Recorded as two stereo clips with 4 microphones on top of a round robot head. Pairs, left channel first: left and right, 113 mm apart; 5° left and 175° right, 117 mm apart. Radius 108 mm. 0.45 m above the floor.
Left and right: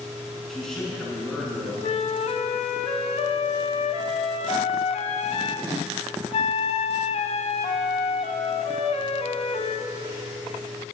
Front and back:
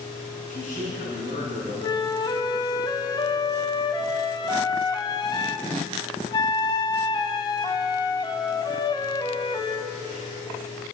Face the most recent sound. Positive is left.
turn(degrees=60)